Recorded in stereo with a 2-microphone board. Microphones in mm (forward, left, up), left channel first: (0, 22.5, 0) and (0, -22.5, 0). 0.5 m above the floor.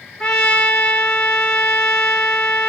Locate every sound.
0.2 s a trumpet: 15° left (ahead or behind), 3 m